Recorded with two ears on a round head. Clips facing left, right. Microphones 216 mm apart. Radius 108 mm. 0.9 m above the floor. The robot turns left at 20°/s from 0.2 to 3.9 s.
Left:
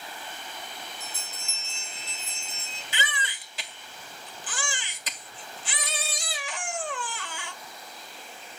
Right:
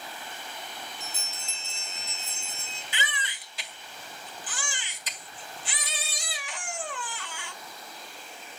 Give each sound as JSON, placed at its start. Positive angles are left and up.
{"t": 1.0, "sound": "a bell", "azimuth_deg": -15, "distance_m": 5.5}
{"t": 2.9, "sound": "a baby crying", "side_deg": 80, "distance_m": 1.7}